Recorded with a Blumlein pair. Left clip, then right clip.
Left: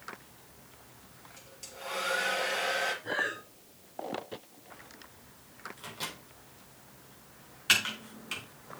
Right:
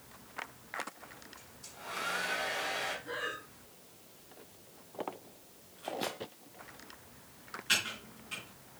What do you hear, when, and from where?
1.4 s a hair dryer: 55° left, 4.5 m
3.0 s breathing: 60° left, 3.5 m
5.8 s a microwave: 60° left, 3.5 m
7.7 s typing on a keyboard: 35° left, 3.5 m